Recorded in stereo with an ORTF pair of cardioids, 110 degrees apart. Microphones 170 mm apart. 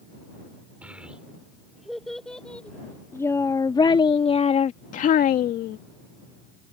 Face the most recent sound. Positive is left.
turn(degrees=70)